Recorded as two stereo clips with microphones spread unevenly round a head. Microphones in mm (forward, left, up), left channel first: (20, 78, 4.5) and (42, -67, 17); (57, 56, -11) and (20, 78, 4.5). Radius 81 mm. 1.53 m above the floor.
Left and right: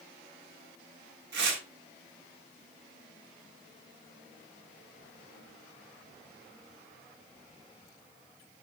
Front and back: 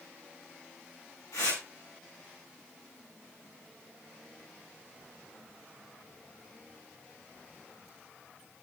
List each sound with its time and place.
1.3 s tearing paper: 80° right, 8 m